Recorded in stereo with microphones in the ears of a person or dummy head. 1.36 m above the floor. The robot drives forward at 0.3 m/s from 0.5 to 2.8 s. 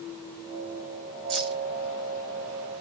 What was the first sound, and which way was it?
Keys jangling, 65° right (ahead or behind).